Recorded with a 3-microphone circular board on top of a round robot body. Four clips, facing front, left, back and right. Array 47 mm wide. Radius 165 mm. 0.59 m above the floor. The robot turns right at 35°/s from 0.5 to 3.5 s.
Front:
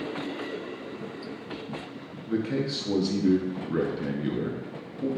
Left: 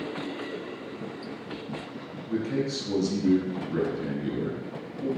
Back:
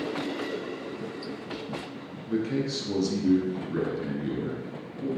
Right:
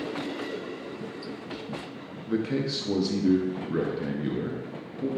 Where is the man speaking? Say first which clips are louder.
Right 1 dB, even; 75° right, 0.6 m; by 5.1 s 35° right, 0.6 m.